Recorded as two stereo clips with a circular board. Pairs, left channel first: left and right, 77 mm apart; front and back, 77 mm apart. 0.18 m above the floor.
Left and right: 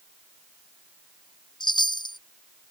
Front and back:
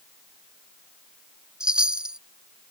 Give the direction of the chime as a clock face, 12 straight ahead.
9 o'clock.